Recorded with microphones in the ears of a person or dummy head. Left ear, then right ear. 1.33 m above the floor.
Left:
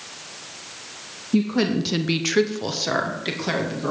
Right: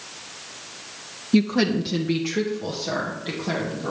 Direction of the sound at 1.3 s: 25° right (ahead or behind).